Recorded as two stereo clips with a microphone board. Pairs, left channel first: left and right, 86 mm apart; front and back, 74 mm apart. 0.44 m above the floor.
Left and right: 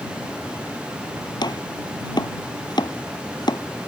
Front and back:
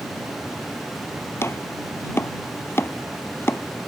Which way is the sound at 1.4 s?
55° left.